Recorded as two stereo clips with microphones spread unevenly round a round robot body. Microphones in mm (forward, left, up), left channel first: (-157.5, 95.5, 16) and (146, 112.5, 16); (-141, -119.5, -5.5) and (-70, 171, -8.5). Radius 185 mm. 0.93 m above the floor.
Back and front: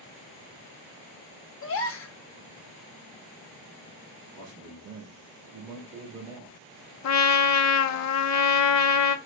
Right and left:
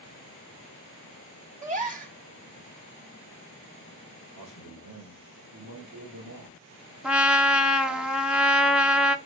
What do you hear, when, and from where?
1.6 s a gasp: 140° left, 1.0 m
4.3 s a man speaking: 5° right, 1.8 m
7.0 s a trumpet: 160° left, 0.7 m